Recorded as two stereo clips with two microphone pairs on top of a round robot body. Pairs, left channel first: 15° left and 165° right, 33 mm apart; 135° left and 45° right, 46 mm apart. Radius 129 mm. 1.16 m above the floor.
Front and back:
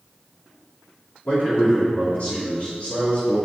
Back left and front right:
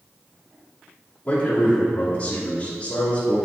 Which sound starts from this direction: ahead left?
A man speaking, at 1.2 s.